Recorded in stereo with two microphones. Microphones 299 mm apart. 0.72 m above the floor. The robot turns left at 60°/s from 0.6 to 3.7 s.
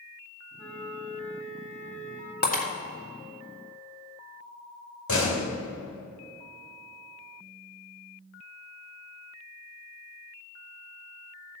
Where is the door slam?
70° left (ahead or behind), 2.0 m.